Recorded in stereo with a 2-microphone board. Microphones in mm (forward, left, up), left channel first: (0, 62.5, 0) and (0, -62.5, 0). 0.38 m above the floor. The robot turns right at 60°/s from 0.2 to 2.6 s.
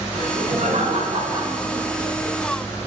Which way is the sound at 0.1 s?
110° right.